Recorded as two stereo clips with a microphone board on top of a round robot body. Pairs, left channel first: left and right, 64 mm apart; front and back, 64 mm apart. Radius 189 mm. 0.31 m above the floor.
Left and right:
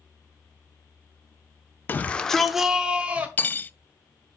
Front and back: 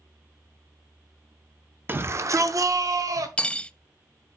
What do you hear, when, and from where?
1.9 s a shout: 135° left, 1.1 m; by 3.3 s 155° right, 1.9 m
3.4 s cutlery clinking: 60° left, 0.6 m